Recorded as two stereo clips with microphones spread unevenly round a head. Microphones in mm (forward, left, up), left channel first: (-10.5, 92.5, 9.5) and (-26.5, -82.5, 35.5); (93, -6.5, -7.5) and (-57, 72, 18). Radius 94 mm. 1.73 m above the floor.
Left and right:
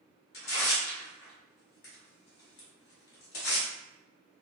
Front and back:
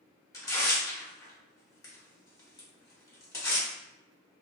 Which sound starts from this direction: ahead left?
Tearing paper, at 0.3 s.